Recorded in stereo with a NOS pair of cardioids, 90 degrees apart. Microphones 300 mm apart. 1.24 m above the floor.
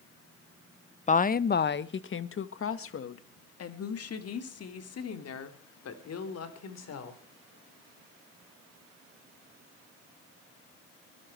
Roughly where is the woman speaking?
Ahead left.